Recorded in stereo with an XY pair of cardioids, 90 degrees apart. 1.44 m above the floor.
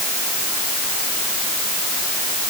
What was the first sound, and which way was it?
Only background noise.